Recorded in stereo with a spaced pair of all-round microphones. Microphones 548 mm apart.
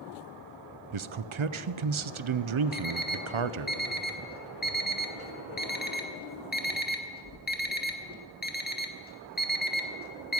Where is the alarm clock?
15° left (ahead or behind), 1.0 m.